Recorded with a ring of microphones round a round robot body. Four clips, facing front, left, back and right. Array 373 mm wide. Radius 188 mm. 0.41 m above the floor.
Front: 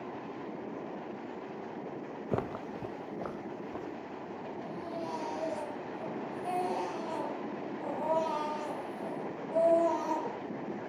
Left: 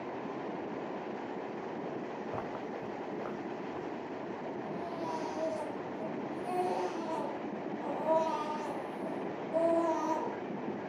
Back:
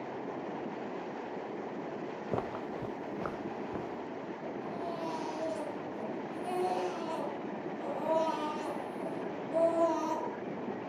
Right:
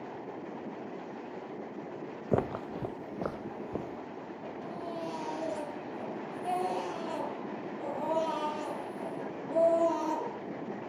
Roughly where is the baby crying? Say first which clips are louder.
Right 2 dB, back 1 dB; right.